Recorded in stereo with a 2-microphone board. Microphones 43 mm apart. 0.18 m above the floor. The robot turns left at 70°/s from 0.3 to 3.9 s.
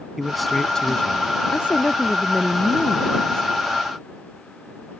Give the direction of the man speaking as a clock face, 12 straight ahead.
6 o'clock.